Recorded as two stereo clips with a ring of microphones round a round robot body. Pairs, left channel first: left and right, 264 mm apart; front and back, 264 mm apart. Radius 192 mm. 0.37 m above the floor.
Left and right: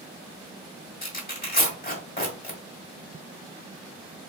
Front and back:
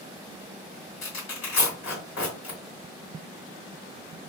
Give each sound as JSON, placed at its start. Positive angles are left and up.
{"t": 1.0, "sound": "tearing paper", "azimuth_deg": 40, "distance_m": 1.9}